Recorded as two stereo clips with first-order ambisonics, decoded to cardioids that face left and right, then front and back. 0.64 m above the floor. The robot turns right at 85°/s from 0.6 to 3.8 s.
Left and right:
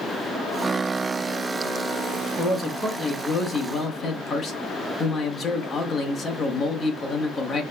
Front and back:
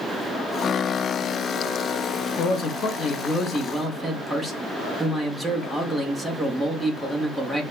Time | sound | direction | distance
2.4 | a man speaking | 25° right | 0.8 m